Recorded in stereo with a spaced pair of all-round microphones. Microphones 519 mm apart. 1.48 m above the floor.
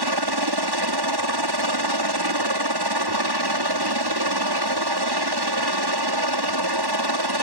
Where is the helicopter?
50° right (ahead or behind).